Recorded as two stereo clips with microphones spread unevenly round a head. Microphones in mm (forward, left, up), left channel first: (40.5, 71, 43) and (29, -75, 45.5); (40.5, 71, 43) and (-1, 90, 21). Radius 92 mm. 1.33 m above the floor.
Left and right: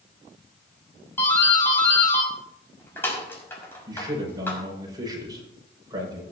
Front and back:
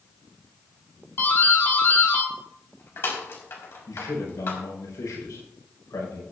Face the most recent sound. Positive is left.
turn(degrees=-30)